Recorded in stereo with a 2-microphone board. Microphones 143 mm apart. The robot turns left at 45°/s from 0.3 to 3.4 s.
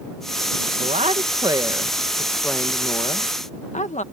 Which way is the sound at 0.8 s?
115° right.